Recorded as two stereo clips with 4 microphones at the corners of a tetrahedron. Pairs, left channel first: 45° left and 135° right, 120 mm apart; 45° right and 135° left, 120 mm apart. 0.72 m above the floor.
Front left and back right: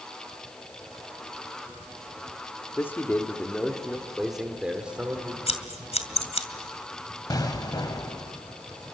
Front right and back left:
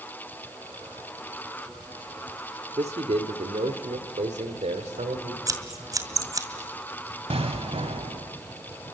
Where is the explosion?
100° left, 1.5 m.